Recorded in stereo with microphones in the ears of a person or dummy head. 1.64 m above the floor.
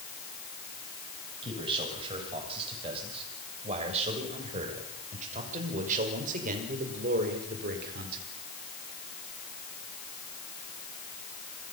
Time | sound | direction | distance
1.4 | a man speaking | 30° right (ahead or behind) | 8.5 m